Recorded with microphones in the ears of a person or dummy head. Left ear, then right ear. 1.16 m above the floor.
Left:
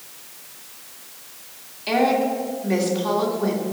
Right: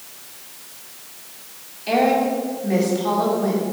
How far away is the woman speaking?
About 2.5 m.